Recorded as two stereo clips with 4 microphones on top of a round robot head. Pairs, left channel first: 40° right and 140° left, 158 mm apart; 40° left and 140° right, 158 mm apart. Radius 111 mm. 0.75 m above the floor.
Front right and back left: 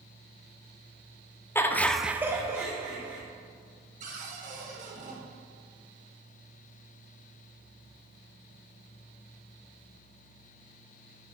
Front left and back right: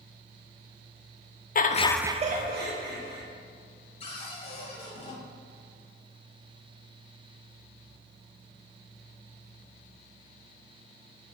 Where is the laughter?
35° left, 0.8 m; by 3.2 s 145° right, 2 m.